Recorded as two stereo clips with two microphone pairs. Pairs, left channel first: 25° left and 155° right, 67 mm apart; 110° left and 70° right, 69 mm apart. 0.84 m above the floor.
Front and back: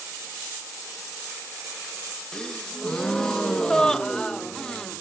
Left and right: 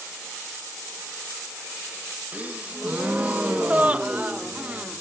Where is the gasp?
30° right, 0.7 m.